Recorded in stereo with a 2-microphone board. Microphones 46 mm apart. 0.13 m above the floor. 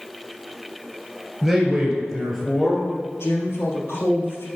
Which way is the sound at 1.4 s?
5° right (ahead or behind).